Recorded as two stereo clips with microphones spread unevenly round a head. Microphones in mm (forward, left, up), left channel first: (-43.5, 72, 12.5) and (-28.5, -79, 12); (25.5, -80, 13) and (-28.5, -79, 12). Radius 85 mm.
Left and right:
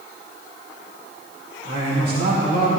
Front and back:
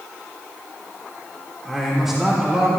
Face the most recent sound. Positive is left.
turn(degrees=-105)